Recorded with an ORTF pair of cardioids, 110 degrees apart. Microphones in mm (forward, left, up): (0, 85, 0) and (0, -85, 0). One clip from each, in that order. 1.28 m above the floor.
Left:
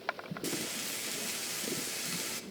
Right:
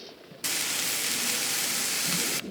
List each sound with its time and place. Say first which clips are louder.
0.4 s frying: right 9 dB; 45° right, 0.6 m